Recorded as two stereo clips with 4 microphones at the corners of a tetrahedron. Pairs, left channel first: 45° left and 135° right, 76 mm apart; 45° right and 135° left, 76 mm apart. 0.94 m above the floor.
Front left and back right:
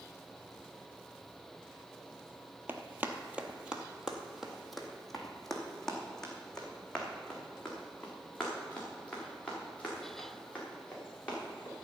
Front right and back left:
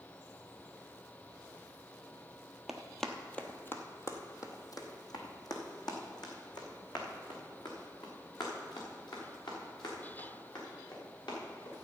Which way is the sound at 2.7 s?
145° right.